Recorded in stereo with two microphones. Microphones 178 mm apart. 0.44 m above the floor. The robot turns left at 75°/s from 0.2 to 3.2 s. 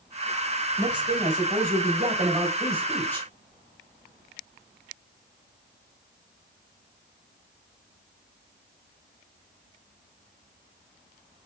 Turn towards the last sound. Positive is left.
turn(degrees=160)